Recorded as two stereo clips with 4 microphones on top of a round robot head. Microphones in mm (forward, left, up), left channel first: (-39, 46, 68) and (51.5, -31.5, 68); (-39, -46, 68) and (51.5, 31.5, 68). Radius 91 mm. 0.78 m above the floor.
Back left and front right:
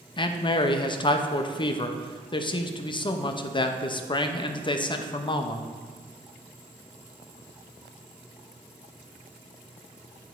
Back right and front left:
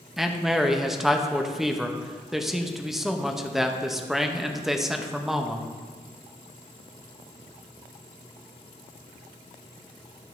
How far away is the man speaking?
About 0.7 m.